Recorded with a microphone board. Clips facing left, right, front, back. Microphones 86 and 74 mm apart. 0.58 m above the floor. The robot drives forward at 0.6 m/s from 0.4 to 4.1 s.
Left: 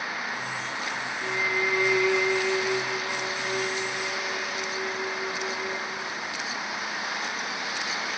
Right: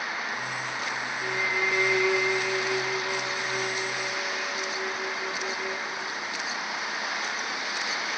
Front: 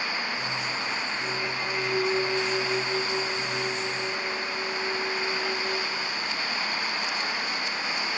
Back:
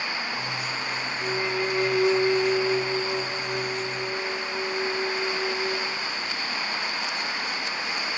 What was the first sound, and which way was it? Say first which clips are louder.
A violin: left 1 dB, back 4 dB; straight behind.